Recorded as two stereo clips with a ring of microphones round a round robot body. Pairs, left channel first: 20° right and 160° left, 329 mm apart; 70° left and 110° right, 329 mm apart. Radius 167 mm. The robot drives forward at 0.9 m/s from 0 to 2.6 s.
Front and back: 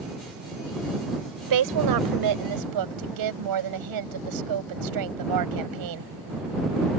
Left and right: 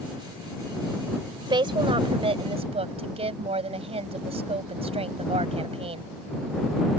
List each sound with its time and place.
1.5 s a woman speaking: 170° left; by 6.1 s 175° left